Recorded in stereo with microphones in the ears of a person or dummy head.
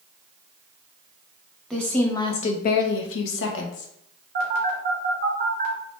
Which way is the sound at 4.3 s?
50° right (ahead or behind).